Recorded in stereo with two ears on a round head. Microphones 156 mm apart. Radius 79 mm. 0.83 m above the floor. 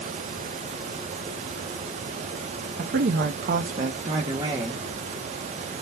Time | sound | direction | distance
2.8 | a woman speaking | 55° right (ahead or behind) | 0.6 m